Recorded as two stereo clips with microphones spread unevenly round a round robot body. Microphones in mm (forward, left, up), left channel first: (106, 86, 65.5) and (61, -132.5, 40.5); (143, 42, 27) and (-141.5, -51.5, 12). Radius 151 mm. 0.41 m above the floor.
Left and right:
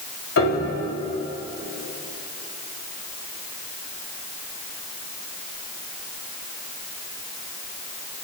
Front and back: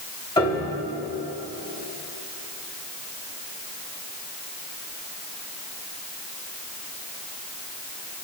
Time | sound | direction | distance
0.4 | a piano | 95° left | 2.5 m